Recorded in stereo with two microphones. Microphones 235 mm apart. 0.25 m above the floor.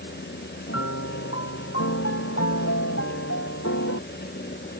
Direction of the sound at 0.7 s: 80° left.